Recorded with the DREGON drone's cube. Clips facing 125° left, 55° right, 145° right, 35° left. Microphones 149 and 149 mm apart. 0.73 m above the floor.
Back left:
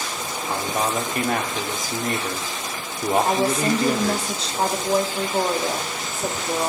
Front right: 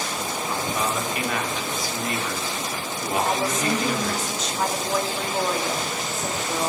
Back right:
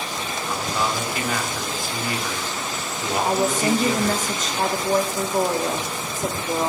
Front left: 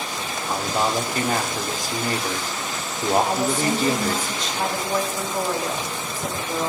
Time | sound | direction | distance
0.5 | a man speaking | 85° left | 1.7 m
3.2 | a woman speaking | 175° left | 1.8 m